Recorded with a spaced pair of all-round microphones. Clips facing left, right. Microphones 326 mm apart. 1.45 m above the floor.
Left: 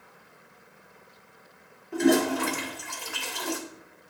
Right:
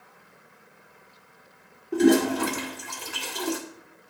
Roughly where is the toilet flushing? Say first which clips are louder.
Right 3 dB; right.